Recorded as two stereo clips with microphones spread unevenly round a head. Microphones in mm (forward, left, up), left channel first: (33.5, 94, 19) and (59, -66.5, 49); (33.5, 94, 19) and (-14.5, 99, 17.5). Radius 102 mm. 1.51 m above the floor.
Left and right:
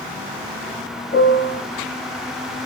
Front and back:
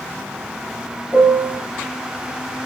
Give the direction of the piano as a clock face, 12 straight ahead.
7 o'clock.